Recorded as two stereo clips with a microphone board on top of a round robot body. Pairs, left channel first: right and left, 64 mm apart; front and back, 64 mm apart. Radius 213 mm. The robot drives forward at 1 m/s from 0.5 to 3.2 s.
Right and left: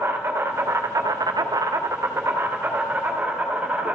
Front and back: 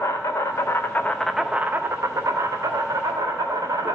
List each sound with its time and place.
0.0 s an insect: 40° left, 1.1 m; by 4.0 s 160° left, 2.0 m